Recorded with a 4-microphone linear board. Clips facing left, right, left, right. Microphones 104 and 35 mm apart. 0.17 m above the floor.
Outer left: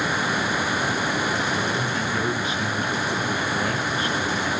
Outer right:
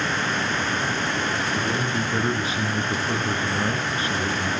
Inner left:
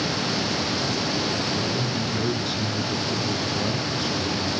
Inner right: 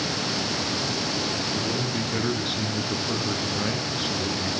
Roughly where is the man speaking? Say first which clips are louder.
Even, inner left 1 dB; right.